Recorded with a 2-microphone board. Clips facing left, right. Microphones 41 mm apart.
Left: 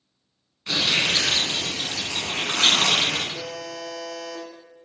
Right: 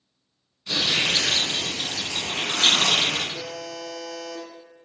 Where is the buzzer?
45° left (ahead or behind), 1.6 m.